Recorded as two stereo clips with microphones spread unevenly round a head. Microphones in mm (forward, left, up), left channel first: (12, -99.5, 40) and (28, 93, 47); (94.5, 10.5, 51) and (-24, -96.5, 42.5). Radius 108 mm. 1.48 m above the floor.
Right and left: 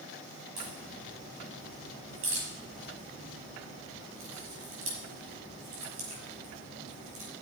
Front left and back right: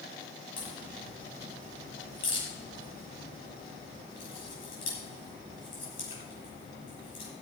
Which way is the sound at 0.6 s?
70° left.